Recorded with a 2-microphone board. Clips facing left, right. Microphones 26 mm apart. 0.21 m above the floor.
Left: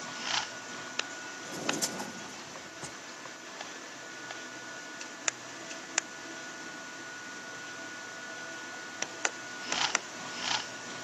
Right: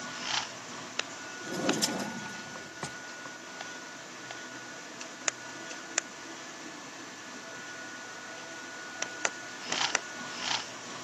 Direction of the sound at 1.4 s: 35° right (ahead or behind).